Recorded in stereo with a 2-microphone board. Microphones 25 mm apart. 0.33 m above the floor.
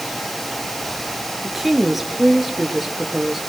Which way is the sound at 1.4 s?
5° right (ahead or behind).